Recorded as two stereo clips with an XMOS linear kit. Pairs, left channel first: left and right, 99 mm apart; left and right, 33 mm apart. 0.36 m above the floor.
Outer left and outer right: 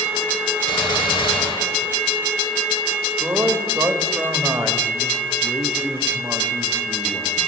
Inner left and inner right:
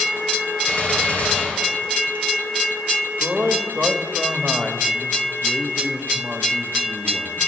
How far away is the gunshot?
About 1.4 m.